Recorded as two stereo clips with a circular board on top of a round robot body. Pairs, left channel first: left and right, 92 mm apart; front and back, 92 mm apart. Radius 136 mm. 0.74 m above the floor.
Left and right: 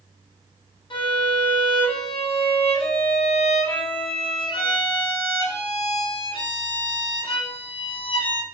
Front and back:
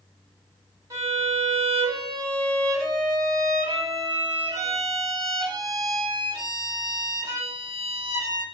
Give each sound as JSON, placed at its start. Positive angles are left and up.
{"t": 0.9, "sound": "a violin", "azimuth_deg": 125, "distance_m": 5.5}